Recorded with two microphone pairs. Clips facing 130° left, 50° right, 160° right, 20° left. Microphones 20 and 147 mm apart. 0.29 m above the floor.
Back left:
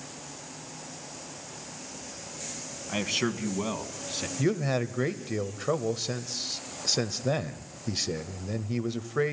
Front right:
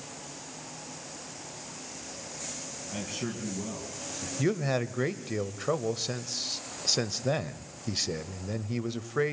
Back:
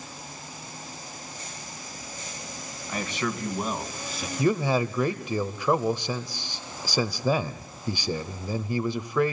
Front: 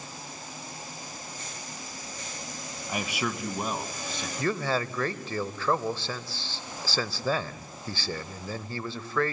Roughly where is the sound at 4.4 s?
Behind right.